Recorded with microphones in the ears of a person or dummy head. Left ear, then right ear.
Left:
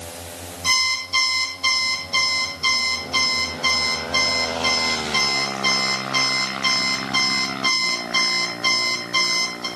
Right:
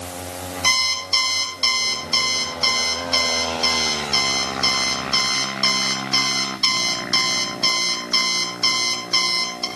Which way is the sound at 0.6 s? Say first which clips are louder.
Right 1 dB; 60° right (ahead or behind).